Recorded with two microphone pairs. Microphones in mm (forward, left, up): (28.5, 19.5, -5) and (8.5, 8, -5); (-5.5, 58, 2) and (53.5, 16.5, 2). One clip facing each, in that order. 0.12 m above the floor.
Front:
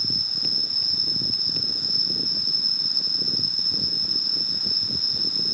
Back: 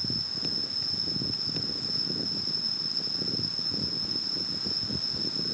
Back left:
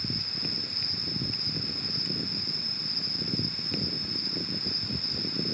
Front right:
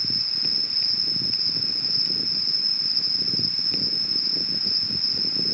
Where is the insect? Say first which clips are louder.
Front 7 dB, back left 1 dB; 40° left.